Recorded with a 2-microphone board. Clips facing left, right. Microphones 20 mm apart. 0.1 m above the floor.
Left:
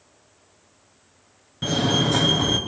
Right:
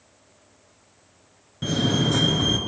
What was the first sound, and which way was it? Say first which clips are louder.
A fire alarm: left 2 dB; 10° left (ahead or behind).